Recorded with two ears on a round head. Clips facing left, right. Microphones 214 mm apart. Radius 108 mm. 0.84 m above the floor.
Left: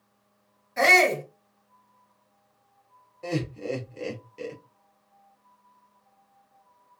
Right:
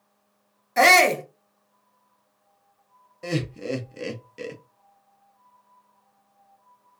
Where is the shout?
65° right (ahead or behind), 0.9 m.